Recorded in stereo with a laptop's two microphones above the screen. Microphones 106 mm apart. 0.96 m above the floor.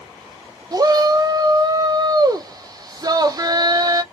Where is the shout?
35° right (ahead or behind), 0.5 m.